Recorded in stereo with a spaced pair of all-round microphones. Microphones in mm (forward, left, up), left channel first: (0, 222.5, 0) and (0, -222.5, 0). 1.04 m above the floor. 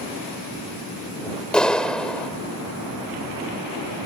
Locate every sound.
1.5 s a clap: centre (ahead or behind)